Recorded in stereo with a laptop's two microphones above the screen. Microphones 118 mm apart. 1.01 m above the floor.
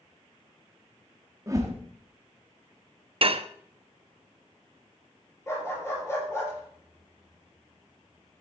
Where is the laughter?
I don't hear laughter.